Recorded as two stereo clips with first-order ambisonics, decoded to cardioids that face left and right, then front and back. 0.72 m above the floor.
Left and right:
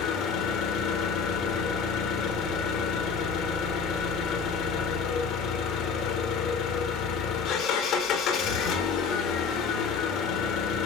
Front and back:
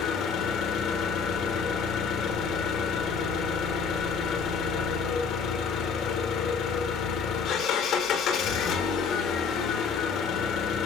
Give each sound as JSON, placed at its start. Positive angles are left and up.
{"t": 0.0, "sound": "an engine running", "azimuth_deg": 45, "distance_m": 1.5}